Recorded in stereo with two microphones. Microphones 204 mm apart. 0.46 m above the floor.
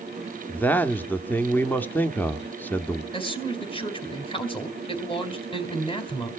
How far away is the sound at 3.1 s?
About 3 m.